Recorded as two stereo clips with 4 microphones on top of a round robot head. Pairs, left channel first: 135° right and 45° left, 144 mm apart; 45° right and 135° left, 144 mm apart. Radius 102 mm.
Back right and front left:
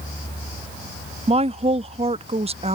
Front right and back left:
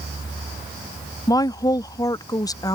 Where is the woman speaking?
15° left.